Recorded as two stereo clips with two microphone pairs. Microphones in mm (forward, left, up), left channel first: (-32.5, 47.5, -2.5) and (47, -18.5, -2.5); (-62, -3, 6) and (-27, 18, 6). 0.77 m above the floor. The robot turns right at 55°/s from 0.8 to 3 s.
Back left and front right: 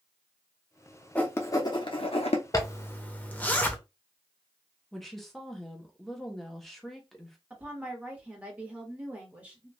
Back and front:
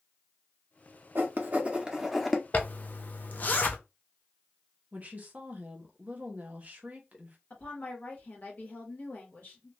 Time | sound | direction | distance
1.1 | writing | 65° left | 0.7 m
2.5 | a zipper | 175° right | 0.5 m
4.9 | a woman speaking | 55° left | 0.8 m
7.5 | a woman speaking | 115° right | 1.2 m